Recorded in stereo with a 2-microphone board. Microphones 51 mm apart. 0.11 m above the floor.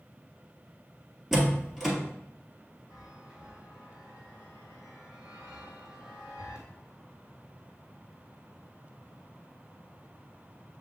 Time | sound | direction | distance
1.3 | a door slam | centre (ahead or behind) | 1.3 m
2.9 | a chime | 15° right (ahead or behind) | 1.5 m